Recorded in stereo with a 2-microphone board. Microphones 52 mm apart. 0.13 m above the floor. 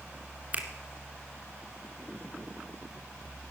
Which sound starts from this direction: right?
A finger snap, at 0.5 s.